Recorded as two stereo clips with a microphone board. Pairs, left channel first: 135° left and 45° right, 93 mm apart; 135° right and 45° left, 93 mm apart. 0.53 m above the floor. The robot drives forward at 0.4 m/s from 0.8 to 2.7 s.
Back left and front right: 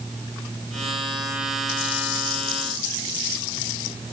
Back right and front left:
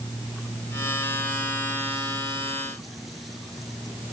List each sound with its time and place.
Only background noise.